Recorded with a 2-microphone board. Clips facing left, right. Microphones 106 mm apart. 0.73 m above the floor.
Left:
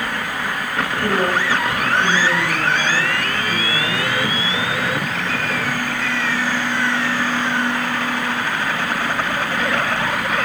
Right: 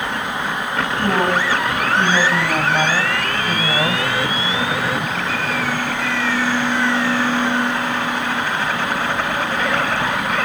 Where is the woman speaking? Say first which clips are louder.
Right 1 dB; 55° right (ahead or behind), 6.5 m.